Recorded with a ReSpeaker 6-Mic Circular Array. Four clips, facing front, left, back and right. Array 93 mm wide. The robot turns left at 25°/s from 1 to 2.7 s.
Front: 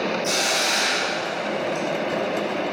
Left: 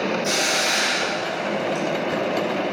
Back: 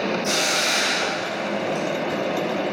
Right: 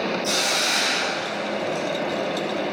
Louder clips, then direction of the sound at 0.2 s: Left 2 dB, even; 115° left.